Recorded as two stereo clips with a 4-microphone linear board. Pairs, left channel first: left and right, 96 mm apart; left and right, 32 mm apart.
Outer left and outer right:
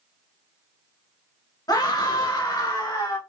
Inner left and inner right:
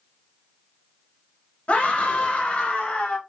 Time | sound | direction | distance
1.7 | a scream | 40° left (ahead or behind) | 1.3 m